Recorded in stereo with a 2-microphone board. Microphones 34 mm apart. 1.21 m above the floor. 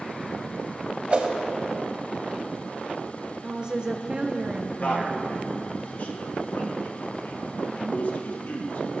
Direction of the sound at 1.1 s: 40° right (ahead or behind).